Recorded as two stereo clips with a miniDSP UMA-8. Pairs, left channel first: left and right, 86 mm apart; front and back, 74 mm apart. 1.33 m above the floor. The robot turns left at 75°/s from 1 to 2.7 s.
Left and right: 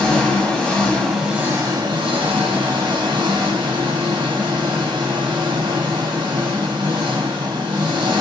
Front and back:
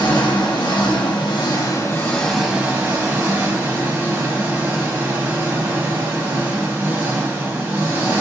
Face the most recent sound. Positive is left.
turn(degrees=-115)